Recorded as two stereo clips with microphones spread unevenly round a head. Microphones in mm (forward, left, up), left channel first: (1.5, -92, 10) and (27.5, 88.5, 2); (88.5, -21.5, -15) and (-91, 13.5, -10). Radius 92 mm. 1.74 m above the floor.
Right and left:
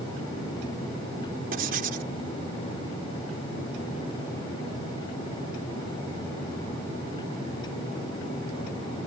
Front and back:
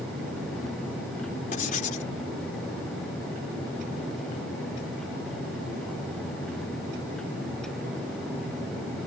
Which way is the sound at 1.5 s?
40° left.